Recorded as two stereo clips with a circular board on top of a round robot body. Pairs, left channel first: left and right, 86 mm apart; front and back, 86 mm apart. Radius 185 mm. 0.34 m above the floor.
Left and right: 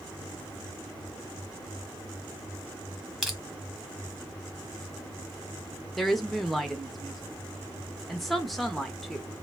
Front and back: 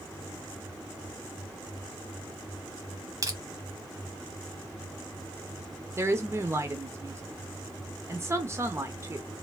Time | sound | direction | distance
3.2 | crushing | 175° right | 1.5 m
6.0 | a woman speaking | 175° left | 0.9 m